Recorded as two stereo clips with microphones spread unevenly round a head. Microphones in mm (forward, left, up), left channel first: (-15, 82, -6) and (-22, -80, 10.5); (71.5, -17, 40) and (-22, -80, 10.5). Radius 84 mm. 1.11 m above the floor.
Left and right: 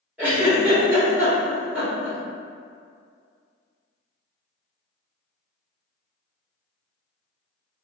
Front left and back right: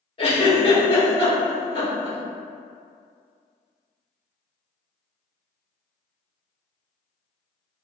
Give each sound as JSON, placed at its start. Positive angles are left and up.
{"t": 0.2, "sound": "a giggle", "azimuth_deg": -10, "distance_m": 1.1}